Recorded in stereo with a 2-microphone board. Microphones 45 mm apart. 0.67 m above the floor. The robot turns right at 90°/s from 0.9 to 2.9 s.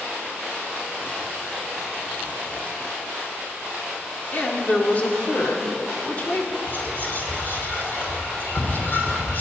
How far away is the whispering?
About 2.5 m.